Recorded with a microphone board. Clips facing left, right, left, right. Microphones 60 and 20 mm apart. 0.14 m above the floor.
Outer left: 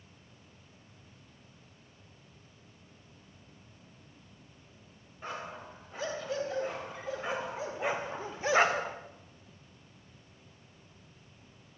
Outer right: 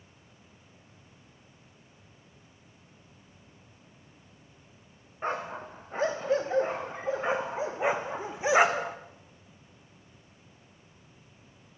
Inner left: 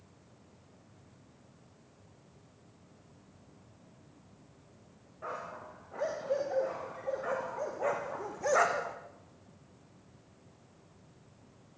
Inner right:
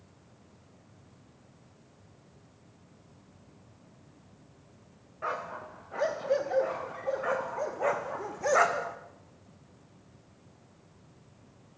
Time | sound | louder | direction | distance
5.2 | a dog barking | outer right 8 dB, inner right 6 dB | 40° right (ahead or behind) | 4.5 m